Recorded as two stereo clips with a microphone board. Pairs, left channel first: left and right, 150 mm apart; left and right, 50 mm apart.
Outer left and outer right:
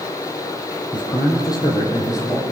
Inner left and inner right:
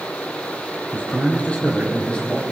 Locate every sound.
0.9 s a man speaking: 30° left (ahead or behind), 4.5 m; by 2.4 s 20° left (ahead or behind), 6 m